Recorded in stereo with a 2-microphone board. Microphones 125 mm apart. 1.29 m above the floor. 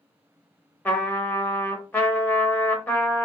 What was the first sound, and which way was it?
A trumpet, 15° left (ahead or behind).